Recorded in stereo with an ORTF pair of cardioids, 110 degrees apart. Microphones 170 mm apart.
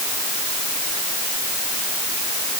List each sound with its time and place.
Only background noise.